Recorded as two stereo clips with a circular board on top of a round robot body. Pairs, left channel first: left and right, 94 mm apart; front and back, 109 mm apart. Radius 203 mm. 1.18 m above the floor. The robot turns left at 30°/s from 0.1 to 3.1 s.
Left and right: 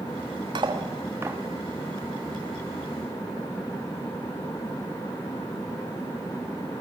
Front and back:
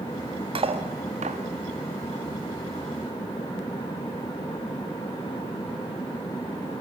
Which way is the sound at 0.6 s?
140° right.